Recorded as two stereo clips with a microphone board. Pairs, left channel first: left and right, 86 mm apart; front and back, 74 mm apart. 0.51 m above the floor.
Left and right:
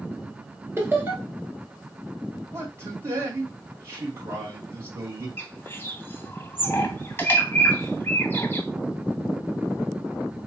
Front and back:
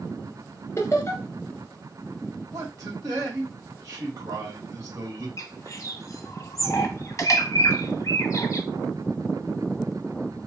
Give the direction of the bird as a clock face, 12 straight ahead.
11 o'clock.